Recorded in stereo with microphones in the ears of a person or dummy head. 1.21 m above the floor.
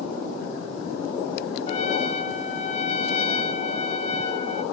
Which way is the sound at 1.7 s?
50° left (ahead or behind).